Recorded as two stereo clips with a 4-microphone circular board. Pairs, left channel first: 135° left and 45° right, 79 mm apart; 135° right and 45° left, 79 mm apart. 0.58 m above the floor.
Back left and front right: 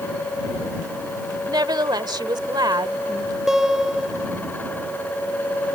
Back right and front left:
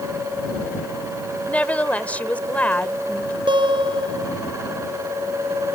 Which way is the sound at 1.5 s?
65° right.